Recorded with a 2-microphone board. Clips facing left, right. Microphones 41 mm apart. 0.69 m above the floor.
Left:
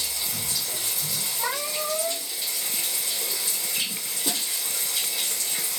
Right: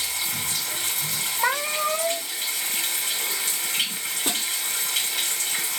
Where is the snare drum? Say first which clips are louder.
Right 2 dB; 55° right (ahead or behind), 2.5 m.